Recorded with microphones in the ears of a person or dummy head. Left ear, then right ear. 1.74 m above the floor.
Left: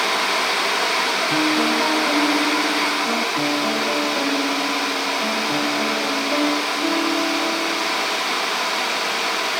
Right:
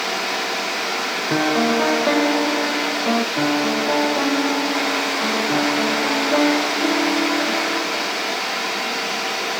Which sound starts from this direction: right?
A piano, at 1.3 s.